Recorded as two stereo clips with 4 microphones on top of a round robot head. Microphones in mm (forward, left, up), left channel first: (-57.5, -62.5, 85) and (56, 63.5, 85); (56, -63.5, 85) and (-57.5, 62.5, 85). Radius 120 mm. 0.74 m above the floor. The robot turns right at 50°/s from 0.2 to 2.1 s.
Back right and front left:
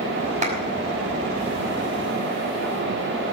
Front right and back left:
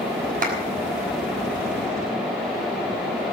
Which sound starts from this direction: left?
A clap, at 0.4 s.